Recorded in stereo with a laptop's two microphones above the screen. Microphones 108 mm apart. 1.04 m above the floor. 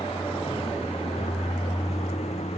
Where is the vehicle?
70° left (ahead or behind); by 2.6 s 85° left.